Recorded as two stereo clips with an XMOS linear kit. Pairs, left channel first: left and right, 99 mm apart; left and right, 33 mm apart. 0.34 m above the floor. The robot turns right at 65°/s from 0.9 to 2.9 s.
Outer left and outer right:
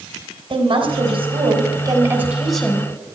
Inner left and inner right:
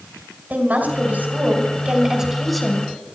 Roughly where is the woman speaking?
Right.